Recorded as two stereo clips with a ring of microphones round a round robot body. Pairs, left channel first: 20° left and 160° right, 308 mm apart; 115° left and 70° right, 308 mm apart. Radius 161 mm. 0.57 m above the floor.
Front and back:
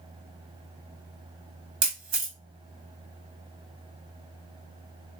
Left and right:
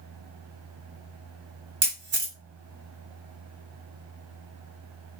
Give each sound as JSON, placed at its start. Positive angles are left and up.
{"t": 1.8, "sound": "a camera shutter", "azimuth_deg": -120, "distance_m": 1.5}